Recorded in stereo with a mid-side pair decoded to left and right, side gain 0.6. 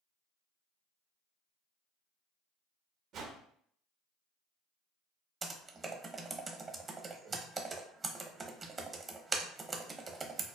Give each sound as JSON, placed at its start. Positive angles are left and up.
{"t": 3.1, "sound": "a whoosh", "azimuth_deg": -60, "distance_m": 0.6}
{"t": 5.4, "sound": "typing on a keyboard", "azimuth_deg": -30, "distance_m": 0.6}